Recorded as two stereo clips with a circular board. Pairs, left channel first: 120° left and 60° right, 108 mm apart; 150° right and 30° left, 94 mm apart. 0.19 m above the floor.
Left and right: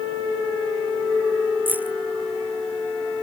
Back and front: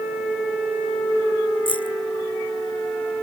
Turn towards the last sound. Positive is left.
turn(degrees=-135)